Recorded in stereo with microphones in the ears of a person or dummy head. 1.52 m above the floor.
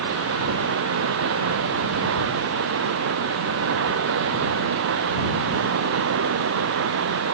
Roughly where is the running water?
Right.